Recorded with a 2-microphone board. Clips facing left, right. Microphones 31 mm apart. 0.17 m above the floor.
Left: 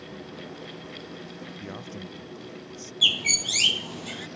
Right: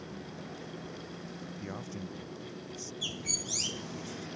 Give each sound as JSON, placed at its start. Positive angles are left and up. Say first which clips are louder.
{"t": 1.6, "sound": "a man speaking", "louder": "left 2 dB", "side_deg": 10}
{"t": 3.0, "sound": "a bird", "louder": "left 17 dB", "side_deg": 75}